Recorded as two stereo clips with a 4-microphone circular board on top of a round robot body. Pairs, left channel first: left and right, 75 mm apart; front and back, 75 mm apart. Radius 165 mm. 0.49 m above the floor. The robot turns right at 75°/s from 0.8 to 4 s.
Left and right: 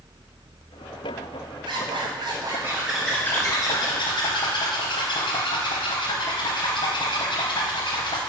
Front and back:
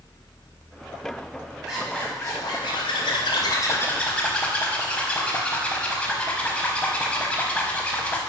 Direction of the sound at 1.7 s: 100° right.